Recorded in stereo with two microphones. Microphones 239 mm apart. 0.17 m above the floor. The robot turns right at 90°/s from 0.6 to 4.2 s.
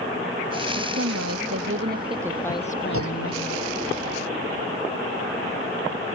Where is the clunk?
115° right; by 3.6 s 55° right.